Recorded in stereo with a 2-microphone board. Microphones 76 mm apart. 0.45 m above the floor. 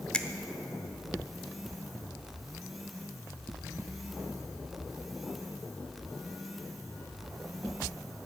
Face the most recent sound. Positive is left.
turn(degrees=15)  # may be behind; listen again after turning